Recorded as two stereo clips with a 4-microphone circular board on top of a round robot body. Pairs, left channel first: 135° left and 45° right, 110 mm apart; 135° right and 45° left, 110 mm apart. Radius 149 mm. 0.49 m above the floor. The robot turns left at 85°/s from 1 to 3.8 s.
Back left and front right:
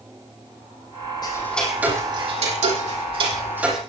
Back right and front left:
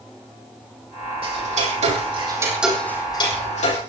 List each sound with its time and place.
1.2 s ticking: 85° left, 6.5 m; by 3.8 s 135° right, 6.5 m